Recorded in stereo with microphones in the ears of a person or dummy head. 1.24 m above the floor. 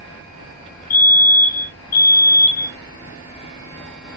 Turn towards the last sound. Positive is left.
turn(degrees=50)  # may be behind; listen again after turning